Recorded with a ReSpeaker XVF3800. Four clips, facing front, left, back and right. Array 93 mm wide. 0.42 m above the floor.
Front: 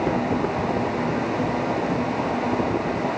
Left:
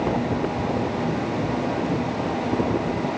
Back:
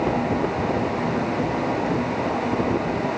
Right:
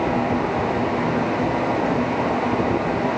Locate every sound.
Only background noise.